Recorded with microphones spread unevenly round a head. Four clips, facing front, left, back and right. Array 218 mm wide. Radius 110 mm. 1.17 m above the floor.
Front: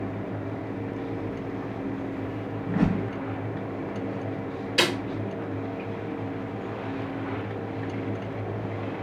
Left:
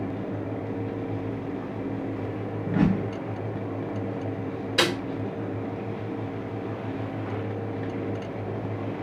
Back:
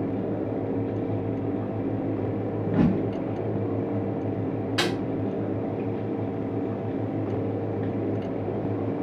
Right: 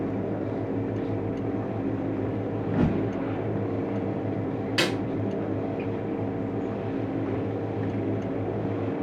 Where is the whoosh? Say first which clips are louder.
Left 2 dB, back 2 dB; 165° right, 1.5 m.